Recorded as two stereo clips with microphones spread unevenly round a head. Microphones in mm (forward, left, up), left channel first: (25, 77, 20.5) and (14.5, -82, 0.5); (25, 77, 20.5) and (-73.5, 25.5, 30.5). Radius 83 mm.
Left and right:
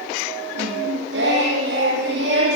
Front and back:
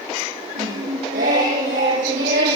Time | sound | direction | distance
0.6 | singing | 120° right | 9.5 m